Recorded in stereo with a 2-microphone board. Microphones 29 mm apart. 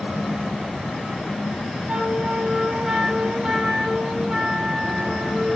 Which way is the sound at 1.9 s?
25° right (ahead or behind).